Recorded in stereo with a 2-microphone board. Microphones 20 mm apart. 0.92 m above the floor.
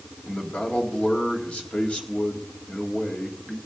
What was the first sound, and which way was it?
A man speaking, 75° left (ahead or behind).